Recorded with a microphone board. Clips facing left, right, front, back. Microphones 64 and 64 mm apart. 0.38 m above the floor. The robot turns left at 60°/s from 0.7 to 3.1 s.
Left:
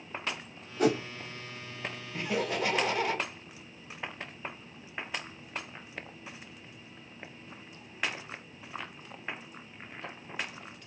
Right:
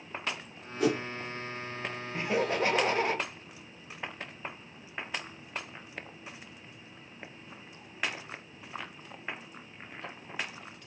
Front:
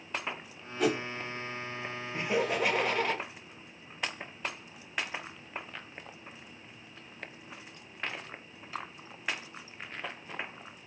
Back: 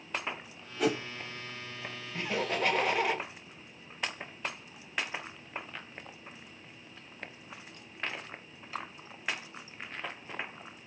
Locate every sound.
0.8 s a whoosh: 95° left, 1.2 m; by 1.0 s 80° left, 1.2 m
2.1 s laughter: 50° right, 1.4 m; by 3.2 s 105° right, 1.4 m